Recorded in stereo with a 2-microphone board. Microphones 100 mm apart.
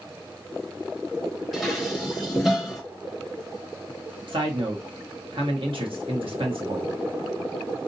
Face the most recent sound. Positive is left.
turn(degrees=-60)  # may be behind; listen again after turning